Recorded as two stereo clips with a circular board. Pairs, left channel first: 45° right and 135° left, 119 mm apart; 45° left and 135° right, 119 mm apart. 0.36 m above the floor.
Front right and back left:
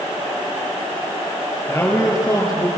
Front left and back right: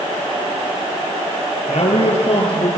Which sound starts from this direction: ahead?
A man speaking, at 1.7 s.